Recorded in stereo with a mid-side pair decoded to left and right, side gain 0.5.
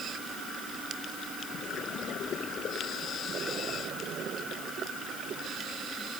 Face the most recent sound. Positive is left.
No sound to turn to.